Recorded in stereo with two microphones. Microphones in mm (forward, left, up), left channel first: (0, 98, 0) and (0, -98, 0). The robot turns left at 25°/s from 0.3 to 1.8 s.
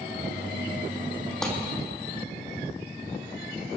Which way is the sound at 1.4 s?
5° left (ahead or behind).